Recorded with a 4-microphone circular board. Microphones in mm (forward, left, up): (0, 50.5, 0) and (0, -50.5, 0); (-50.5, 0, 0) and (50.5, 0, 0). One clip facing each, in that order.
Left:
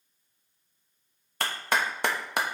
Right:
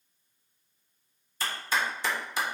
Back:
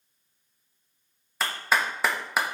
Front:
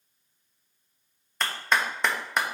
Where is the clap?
95° left, 1.0 m.